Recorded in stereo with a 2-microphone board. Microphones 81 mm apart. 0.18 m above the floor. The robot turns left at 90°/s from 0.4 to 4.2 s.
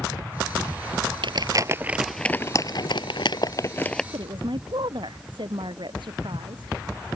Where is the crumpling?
70° right (ahead or behind); by 4.0 s 5° left (ahead or behind).